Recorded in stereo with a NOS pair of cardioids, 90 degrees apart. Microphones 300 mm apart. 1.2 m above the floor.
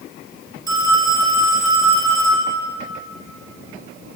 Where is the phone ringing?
15° right, 2.5 m.